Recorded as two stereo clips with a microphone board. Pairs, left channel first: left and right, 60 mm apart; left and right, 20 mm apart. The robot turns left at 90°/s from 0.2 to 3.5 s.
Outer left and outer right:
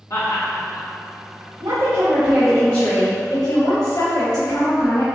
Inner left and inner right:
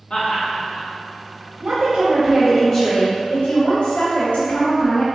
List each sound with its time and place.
0.1 s laughter: 65° left (ahead or behind), 2.0 m; by 0.9 s 55° left (ahead or behind), 2.0 m
1.6 s a woman speaking: 85° right, 0.9 m; by 5.0 s 105° left, 0.9 m